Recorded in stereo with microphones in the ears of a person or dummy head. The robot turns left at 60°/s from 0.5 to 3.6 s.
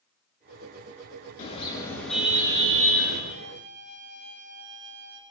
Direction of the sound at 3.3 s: 90° right.